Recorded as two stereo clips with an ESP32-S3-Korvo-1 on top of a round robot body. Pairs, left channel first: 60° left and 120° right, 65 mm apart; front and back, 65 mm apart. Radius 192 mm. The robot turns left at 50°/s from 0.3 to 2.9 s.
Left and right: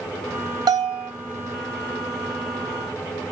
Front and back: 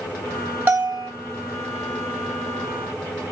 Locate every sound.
0.7 s a bell: 115° right, 0.8 m; by 1.1 s 135° right, 0.8 m